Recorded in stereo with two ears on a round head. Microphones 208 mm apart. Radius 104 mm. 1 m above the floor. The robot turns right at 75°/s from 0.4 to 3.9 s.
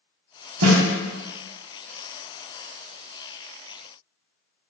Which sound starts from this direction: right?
A snare drum, at 0.6 s.